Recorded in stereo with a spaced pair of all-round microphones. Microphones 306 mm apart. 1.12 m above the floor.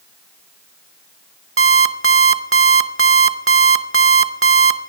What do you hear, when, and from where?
1.6 s an alarm clock: 45° right (ahead or behind), 0.6 m